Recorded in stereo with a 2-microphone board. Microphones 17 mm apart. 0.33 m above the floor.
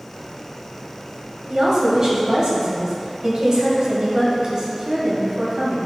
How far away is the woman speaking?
About 1.8 m.